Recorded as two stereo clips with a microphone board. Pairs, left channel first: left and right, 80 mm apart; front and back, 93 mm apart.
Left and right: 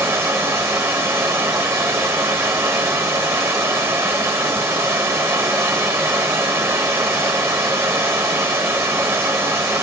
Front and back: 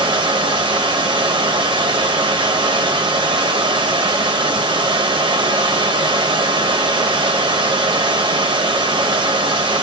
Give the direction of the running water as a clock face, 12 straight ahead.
5 o'clock.